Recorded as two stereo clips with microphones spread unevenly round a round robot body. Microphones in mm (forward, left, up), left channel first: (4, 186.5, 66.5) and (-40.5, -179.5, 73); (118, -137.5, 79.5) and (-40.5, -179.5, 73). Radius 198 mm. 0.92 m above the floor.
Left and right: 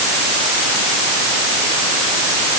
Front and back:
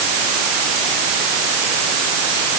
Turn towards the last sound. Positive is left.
No sound to turn to.